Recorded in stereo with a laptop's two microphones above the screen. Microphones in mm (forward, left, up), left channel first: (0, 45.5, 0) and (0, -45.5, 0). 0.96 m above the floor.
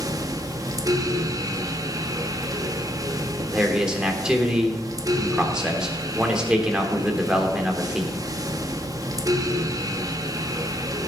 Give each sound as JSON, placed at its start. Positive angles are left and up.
{"t": 0.0, "sound": "a fan", "side_deg": -40, "distance_m": 1.2}
{"t": 3.5, "sound": "a man speaking", "side_deg": -10, "distance_m": 3.0}